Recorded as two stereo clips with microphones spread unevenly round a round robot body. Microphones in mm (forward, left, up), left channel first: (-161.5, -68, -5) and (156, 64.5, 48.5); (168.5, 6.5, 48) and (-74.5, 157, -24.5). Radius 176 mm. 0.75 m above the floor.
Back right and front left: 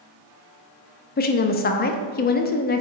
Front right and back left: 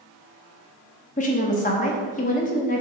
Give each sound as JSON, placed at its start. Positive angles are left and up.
{"t": 1.2, "sound": "a woman speaking", "azimuth_deg": -105, "distance_m": 0.8}